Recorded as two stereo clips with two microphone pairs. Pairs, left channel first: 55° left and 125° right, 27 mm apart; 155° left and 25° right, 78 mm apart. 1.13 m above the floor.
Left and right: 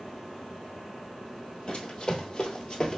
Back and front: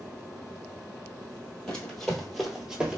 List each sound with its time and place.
1.7 s running footsteps: 80° left, 1.4 m; by 3.0 s 30° left, 1.2 m